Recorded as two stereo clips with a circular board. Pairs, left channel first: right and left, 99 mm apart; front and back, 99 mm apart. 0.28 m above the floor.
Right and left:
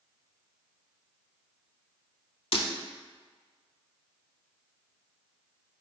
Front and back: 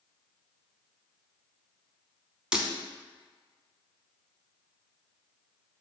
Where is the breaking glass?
100° right, 0.6 m.